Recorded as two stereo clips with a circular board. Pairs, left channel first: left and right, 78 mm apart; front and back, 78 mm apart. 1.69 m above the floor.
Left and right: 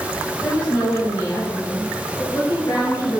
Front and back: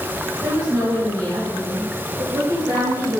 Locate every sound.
0.4 s a woman speaking: 170° left, 3 m; by 3.2 s 125° left, 1.9 m